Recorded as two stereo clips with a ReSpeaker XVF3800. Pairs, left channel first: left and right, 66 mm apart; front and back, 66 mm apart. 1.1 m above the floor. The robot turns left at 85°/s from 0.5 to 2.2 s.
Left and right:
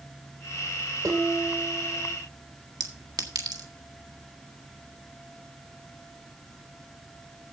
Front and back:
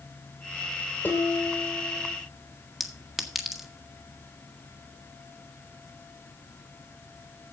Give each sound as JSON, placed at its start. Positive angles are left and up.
{"t": 1.0, "sound": "dishes clattering", "azimuth_deg": -60, "distance_m": 2.5}
{"t": 2.8, "sound": "a clink", "azimuth_deg": -95, "distance_m": 1.5}